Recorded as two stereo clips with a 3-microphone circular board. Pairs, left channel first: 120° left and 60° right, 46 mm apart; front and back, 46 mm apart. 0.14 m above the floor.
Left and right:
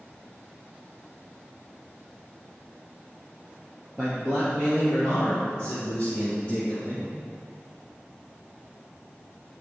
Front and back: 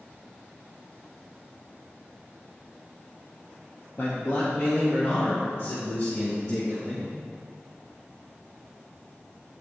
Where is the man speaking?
40° left, 2.5 m; by 7.0 s 70° left, 6 m.